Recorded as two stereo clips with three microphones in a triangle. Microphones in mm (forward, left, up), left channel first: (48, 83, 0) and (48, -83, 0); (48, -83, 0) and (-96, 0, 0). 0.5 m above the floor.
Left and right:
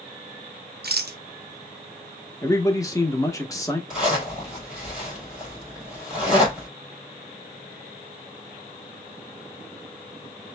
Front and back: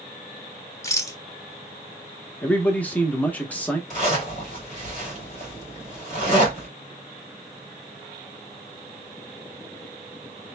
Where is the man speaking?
40° left, 0.8 m.